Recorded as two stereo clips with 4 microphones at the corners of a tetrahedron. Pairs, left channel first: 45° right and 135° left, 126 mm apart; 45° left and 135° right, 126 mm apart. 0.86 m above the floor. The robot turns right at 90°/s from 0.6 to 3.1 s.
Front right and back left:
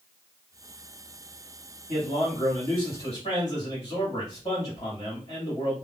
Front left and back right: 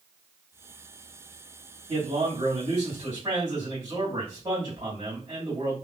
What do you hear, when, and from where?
1.9 s a man speaking: 170° left, 1.4 m; by 5.8 s 80° right, 1.4 m